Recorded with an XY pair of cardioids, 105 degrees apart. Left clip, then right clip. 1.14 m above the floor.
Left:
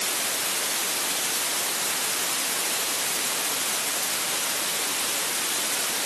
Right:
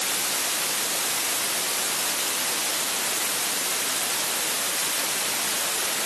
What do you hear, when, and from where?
Only background noise.